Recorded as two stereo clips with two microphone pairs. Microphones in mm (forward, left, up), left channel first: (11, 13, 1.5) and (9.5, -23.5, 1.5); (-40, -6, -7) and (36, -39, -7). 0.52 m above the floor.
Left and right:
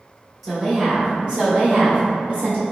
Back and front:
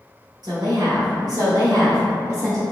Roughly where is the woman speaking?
Ahead.